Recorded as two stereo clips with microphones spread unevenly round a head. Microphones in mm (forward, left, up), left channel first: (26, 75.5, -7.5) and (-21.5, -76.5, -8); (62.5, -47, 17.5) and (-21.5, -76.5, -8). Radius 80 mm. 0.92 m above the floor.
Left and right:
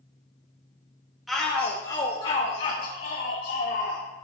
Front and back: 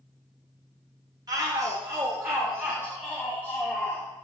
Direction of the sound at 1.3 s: 165° left.